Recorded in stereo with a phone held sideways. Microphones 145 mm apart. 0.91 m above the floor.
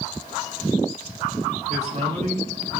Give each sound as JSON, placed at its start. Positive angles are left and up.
{"t": 1.7, "sound": "a man speaking", "side_deg": -55, "distance_m": 4.5}